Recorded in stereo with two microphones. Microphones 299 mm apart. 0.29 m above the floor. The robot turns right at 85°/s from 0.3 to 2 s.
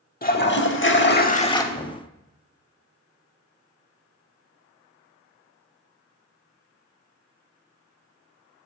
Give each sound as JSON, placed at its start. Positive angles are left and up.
{"t": 0.2, "sound": "a toilet flushing", "azimuth_deg": 50, "distance_m": 0.6}
{"t": 1.7, "sound": "knocking", "side_deg": 20, "distance_m": 0.8}